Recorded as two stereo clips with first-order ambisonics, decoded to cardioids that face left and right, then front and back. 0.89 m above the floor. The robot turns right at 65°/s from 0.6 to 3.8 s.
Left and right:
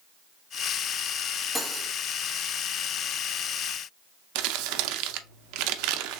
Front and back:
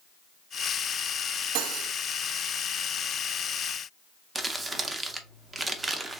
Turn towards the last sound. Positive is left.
turn(degrees=-105)